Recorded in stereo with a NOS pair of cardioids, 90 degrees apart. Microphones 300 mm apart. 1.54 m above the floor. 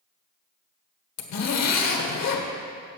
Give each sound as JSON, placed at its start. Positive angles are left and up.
{"t": 1.2, "sound": "a zipper", "azimuth_deg": 60, "distance_m": 1.5}